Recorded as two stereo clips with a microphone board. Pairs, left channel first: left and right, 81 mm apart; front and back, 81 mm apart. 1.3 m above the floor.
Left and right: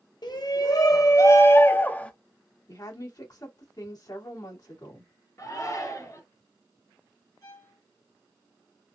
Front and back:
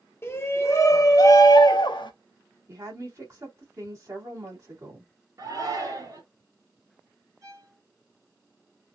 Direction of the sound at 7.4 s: 135° left.